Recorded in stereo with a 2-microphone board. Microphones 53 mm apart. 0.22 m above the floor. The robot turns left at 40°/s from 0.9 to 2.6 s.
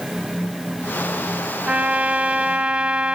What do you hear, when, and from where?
1.7 s a trumpet: 25° right (ahead or behind), 0.8 m; by 3.1 s 20° right (ahead or behind), 0.8 m